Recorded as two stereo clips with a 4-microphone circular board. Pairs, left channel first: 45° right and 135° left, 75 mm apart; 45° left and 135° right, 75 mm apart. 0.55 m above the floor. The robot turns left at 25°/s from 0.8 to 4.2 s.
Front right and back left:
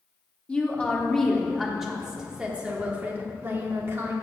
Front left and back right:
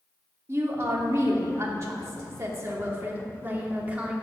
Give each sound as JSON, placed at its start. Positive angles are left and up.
{"t": 0.5, "sound": "a woman speaking", "azimuth_deg": -115, "distance_m": 1.4}